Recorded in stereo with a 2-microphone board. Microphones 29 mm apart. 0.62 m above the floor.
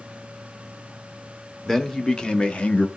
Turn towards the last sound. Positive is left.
turn(degrees=45)  # may be behind; listen again after turning